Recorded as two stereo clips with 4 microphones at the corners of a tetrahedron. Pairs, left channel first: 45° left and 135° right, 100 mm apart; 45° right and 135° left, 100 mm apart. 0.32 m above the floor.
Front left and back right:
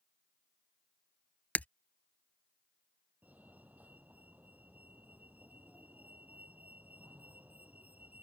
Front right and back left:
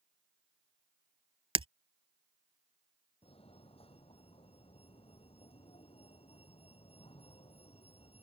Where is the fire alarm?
60° right.